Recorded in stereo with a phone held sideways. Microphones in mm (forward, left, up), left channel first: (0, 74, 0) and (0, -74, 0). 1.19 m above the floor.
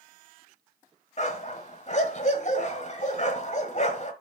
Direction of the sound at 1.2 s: 50° left (ahead or behind).